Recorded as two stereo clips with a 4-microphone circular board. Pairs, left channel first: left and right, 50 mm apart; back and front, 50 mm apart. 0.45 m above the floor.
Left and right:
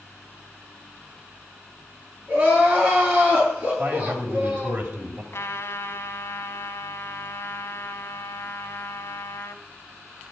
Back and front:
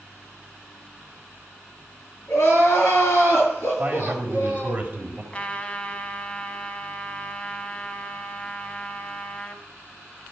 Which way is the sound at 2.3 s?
150° right.